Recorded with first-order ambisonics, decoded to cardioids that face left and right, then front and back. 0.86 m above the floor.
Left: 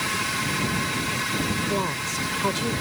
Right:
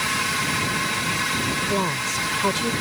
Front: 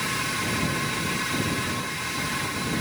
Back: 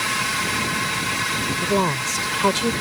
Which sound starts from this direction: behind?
A woman speaking, at 1.6 s.